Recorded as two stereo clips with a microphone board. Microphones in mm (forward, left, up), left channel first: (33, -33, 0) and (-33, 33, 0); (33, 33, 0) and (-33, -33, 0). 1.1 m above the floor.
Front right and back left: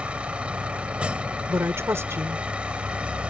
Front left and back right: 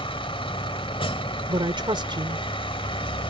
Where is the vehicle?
55° left.